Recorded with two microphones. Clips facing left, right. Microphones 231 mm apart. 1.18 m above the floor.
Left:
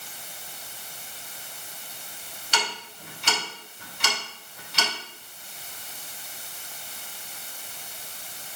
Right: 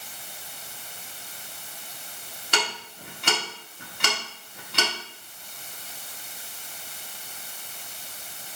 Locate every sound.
2.5 s ticking: 60° right (ahead or behind), 1.9 m